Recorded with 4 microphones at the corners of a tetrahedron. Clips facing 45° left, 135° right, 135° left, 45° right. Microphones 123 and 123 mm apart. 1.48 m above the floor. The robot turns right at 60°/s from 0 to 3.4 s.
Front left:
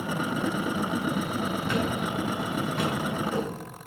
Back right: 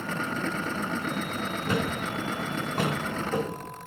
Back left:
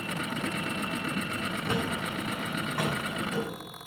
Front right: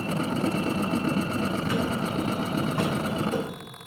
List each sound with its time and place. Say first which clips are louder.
1.7 s a thud: back right 1 dB, front right 4 dB; 170° right, 1.8 m; by 3.6 s 65° right, 1.8 m